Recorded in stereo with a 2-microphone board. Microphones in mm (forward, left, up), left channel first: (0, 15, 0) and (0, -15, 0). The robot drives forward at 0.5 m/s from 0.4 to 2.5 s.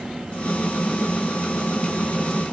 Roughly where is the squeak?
No squeak in this recording.